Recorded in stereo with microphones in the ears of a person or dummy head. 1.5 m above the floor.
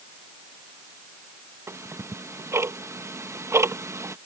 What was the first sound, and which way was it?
Ticking, 15° right (ahead or behind).